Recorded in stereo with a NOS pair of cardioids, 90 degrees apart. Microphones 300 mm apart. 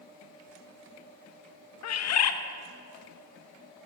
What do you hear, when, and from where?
1.8 s a bird: 60° left, 1.0 m